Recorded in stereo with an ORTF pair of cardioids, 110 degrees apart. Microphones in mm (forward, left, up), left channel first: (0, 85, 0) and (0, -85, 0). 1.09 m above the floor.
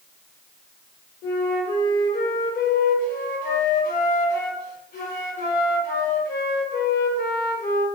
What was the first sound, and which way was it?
A flute, 55° left.